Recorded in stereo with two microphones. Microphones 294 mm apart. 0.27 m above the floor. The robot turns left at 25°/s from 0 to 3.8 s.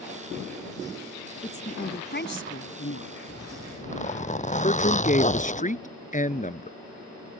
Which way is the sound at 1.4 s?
155° left.